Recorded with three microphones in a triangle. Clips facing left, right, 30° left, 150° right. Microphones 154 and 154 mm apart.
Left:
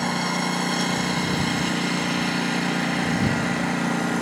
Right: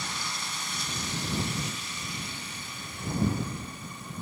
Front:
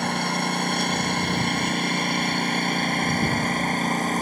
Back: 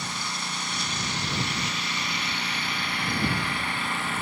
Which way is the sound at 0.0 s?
60° left.